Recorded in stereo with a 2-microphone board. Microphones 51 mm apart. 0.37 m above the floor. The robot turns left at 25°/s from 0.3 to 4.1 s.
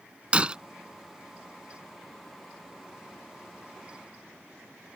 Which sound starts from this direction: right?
Breaking glass, at 0.3 s.